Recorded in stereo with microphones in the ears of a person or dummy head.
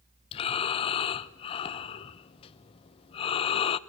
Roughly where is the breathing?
Left.